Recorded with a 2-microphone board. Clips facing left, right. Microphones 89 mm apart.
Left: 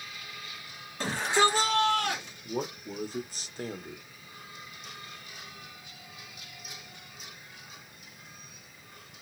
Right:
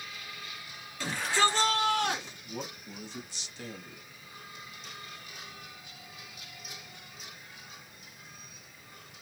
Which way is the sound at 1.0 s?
35° left (ahead or behind).